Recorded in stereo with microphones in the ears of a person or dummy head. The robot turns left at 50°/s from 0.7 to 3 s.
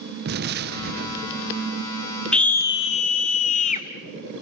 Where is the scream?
Straight behind, 0.8 m; by 3.9 s 145° left, 0.8 m.